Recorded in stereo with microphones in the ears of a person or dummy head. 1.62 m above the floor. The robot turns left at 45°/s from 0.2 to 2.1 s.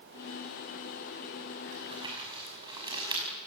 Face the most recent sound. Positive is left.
turn(degrees=-20)  # may be behind; listen again after turning